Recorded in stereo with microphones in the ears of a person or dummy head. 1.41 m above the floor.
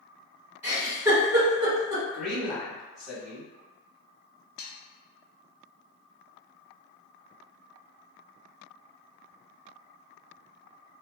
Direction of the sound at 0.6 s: 15° right (ahead or behind).